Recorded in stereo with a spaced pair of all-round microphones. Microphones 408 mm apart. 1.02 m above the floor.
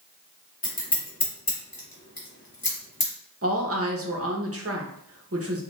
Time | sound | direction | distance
0.6 | scissors | 60° left (ahead or behind) | 1.5 m
3.4 | a woman speaking | 35° right (ahead or behind) | 0.8 m